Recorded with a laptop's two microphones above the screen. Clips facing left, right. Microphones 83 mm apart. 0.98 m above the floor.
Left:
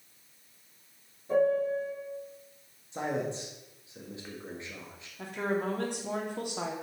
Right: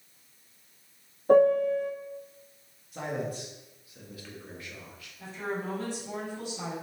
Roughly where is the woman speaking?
Left.